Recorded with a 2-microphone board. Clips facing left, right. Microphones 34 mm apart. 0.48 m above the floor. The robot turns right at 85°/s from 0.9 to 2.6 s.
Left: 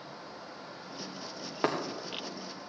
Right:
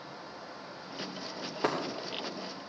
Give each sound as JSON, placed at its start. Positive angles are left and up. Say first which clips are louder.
{"t": 1.6, "sound": "breaking glass", "louder": "left 1 dB", "side_deg": 50, "distance_m": 4.0}